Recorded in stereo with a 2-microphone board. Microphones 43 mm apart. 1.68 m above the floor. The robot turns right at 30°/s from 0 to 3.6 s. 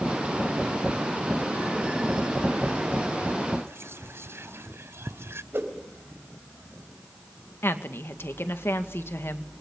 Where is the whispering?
75° right (ahead or behind), 0.6 m.